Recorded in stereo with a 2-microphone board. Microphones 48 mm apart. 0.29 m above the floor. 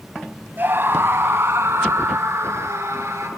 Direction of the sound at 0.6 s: 45° right (ahead or behind).